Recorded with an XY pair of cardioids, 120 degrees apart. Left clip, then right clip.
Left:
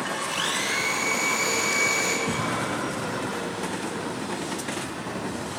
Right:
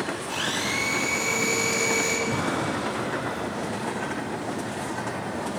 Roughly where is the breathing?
Ahead left.